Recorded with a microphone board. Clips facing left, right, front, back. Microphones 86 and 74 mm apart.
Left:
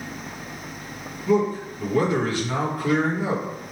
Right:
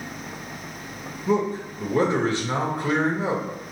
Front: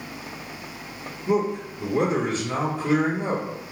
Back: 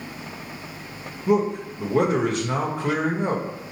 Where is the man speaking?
155° right, 1.2 m.